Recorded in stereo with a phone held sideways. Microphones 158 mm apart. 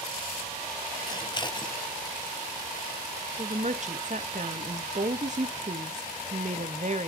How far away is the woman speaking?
About 0.8 m.